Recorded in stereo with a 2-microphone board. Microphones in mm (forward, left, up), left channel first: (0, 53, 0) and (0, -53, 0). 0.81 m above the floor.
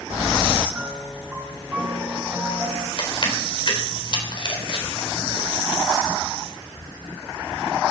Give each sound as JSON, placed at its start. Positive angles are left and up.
{"t": 0.7, "sound": "a piano", "side_deg": -15, "distance_m": 2.5}
{"t": 3.0, "sound": "chewing", "side_deg": 50, "distance_m": 4.0}